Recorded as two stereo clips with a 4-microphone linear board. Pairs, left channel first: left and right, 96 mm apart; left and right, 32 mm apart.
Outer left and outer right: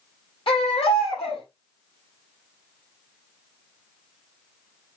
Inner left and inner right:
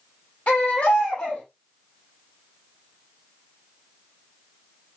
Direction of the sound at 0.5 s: 70° left (ahead or behind).